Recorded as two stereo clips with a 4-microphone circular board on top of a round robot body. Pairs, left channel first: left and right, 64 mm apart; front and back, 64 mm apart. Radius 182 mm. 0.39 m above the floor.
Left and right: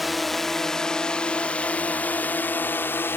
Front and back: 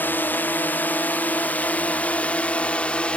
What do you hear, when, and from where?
0.0 s a drone: straight ahead; by 3.2 s 65° left